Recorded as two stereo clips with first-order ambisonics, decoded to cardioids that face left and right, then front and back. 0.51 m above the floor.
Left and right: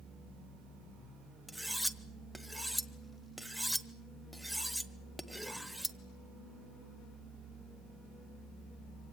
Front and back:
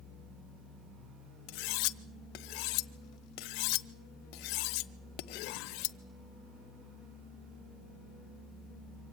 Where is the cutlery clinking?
Straight ahead, 0.8 m.